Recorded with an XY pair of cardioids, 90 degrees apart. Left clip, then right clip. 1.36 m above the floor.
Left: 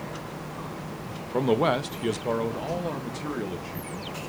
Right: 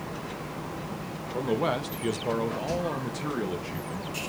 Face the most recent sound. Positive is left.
turn(degrees=-20)